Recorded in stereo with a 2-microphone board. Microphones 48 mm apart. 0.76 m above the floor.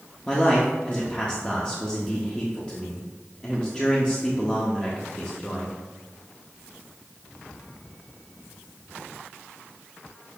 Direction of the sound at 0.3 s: 20° left (ahead or behind).